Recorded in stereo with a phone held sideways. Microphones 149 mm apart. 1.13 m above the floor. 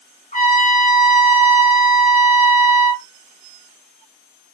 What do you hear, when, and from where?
0.3 s a trumpet: 60° left (ahead or behind), 1.8 m